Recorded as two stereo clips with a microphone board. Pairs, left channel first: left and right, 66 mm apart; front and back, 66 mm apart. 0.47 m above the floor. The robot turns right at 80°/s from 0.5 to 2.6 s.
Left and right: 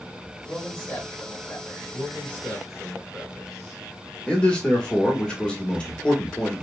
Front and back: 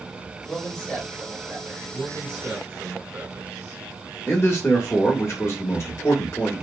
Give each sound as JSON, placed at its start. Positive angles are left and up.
{"t": 0.5, "sound": "a man speaking", "azimuth_deg": 40, "distance_m": 1.4}
{"t": 1.9, "sound": "a man speaking", "azimuth_deg": 125, "distance_m": 1.7}
{"t": 4.3, "sound": "a man speaking", "azimuth_deg": 20, "distance_m": 1.0}